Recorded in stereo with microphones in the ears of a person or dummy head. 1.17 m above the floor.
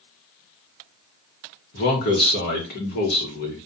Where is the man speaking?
50° left (ahead or behind), 0.9 m.